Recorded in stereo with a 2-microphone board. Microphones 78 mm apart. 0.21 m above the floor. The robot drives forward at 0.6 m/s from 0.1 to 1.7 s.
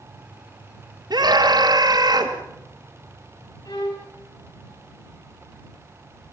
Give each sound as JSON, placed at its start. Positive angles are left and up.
{"t": 1.1, "sound": "a scream", "side_deg": -55, "distance_m": 2.0}
{"t": 3.6, "sound": "a violin", "side_deg": 60, "distance_m": 5.5}